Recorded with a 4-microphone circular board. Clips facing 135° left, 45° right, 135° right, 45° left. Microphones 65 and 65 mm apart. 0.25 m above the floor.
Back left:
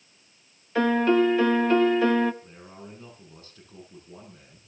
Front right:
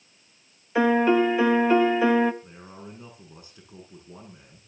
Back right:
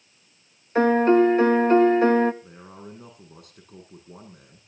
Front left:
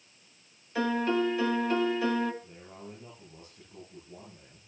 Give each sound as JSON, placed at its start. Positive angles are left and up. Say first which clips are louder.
{"t": 0.8, "sound": "a piano", "louder": "front right 1 dB, back right 11 dB", "azimuth_deg": -115, "distance_m": 0.8}
{"t": 2.4, "sound": "a man speaking", "louder": "front right 1 dB, back right 4 dB", "azimuth_deg": -115, "distance_m": 9.0}